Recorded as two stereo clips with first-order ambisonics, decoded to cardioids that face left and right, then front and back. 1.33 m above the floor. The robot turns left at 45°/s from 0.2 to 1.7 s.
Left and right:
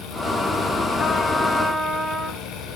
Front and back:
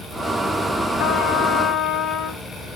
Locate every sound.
1.0 s a trumpet: 35° left, 1.1 m; by 2.5 s straight ahead, 1.1 m